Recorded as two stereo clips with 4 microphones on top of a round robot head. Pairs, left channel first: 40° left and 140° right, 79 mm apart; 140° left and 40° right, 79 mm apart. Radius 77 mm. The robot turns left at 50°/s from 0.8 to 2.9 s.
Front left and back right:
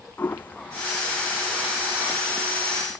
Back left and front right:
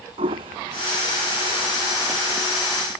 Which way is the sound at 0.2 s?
30° right.